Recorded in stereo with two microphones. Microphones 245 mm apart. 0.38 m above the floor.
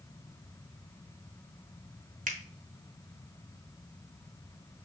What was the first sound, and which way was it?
A finger snap, 35° right (ahead or behind).